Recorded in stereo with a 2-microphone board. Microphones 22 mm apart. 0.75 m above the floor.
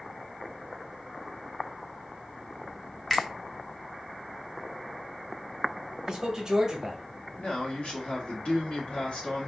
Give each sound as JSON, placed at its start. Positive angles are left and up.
{"t": 3.1, "sound": "a finger snap", "side_deg": 5, "distance_m": 0.8}
{"t": 6.1, "sound": "a man speaking", "side_deg": -30, "distance_m": 1.1}
{"t": 7.4, "sound": "a man speaking", "side_deg": 60, "distance_m": 1.6}